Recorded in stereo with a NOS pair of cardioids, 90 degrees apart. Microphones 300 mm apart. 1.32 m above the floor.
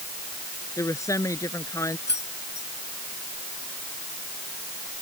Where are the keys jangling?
35° left.